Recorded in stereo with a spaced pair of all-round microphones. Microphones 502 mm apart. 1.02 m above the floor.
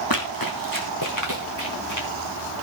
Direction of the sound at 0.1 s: 40° left (ahead or behind).